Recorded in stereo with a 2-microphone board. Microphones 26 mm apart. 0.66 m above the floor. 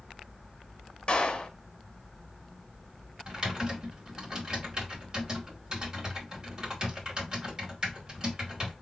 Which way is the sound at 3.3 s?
30° right (ahead or behind).